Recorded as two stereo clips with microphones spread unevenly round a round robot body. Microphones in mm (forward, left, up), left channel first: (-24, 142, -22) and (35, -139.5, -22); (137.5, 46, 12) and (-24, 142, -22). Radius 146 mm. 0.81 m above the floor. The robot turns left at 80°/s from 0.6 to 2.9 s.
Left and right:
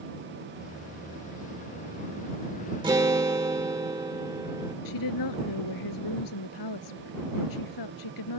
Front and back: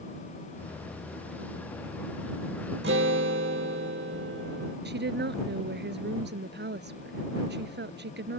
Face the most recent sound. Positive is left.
turn(degrees=120)